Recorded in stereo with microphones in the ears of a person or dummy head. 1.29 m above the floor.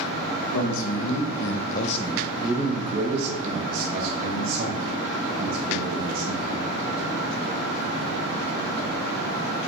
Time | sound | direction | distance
0.5 | a man speaking | 80° left | 1.1 m